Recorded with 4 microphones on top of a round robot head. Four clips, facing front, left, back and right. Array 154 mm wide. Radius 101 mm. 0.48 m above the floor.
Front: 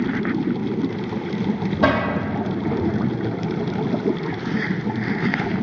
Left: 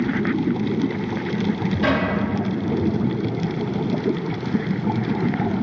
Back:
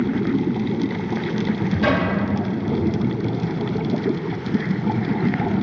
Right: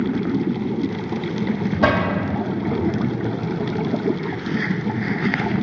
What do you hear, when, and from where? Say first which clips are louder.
1.8 s a cupboard door: right 2 dB, front 1 dB; 40° right, 2.5 m